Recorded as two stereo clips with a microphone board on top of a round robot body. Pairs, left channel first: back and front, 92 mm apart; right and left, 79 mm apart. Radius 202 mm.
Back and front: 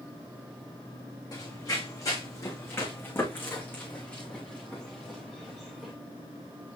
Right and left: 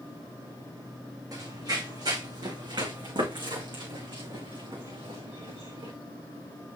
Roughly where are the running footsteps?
Behind left.